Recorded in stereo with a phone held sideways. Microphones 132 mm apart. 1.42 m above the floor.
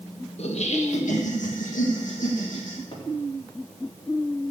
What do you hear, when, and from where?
0.4 s laughter: 55° left (ahead or behind), 1.6 m; by 2.8 s 75° left (ahead or behind), 2.5 m
2.9 s a cupboard door: 40° left (ahead or behind), 2.5 m